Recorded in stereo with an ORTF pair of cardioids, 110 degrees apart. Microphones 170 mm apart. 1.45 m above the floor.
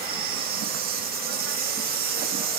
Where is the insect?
70° right, 1.4 m.